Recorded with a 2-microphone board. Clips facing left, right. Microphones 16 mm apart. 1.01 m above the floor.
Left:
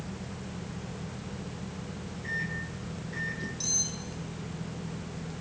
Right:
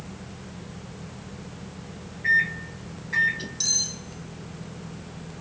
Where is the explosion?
No explosion in this recording.